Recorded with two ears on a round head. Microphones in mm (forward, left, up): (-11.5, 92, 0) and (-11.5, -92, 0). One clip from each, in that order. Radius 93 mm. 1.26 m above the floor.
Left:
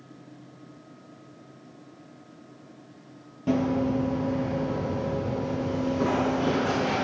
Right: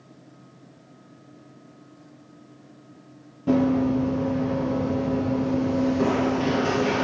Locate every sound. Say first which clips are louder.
3.5 s running footsteps: right 4 dB; 30° left (ahead or behind), 1.6 m; by 7.0 s 45° right (ahead or behind), 1.7 m